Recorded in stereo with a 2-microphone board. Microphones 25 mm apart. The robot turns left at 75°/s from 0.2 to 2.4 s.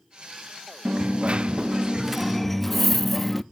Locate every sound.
0.8 s a dropped coin: 70° right, 0.5 m; by 3.4 s 175° left, 0.5 m